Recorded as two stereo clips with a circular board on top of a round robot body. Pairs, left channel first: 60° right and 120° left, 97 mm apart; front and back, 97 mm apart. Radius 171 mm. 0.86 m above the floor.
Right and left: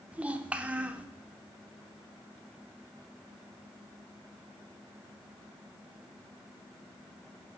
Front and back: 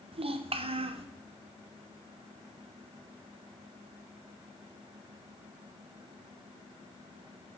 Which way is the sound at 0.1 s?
165° right.